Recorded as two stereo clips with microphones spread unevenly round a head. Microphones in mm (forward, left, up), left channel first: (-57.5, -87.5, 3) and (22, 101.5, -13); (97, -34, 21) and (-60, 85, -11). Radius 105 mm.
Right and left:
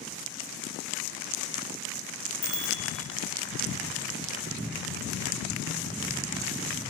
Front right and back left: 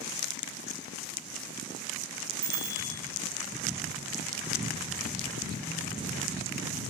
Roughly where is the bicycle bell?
Behind.